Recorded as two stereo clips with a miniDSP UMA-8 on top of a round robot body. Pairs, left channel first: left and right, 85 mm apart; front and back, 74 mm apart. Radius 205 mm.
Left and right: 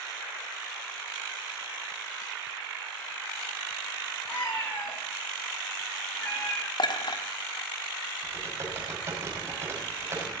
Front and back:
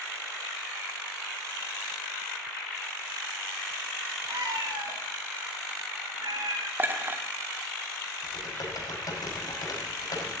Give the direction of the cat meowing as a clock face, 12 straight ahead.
7 o'clock.